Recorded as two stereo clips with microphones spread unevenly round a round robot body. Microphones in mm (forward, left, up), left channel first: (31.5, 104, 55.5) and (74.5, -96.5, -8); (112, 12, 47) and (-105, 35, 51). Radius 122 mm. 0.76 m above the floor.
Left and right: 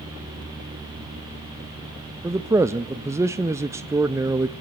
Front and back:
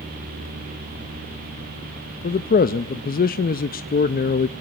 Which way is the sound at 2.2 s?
30° right.